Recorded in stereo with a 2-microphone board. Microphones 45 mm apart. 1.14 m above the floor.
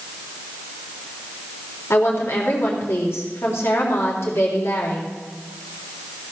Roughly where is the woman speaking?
Left.